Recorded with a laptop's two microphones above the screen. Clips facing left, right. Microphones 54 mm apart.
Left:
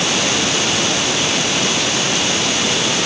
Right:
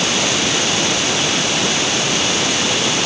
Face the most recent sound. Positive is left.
No sound to turn to.